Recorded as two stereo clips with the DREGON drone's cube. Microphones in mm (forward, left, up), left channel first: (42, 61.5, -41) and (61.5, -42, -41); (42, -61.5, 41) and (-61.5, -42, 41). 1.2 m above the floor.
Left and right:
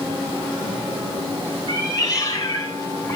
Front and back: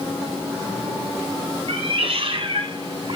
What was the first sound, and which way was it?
A cat meowing, 155° left.